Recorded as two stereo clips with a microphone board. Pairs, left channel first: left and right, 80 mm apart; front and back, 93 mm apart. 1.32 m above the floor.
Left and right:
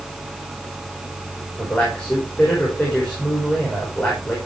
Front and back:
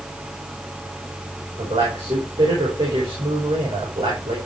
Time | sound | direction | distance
1.6 | a man speaking | 165° left | 5 m